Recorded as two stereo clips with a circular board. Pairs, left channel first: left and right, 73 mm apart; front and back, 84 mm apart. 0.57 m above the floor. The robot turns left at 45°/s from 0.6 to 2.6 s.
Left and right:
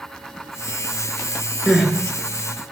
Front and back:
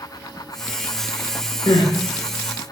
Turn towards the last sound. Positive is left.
turn(degrees=-40)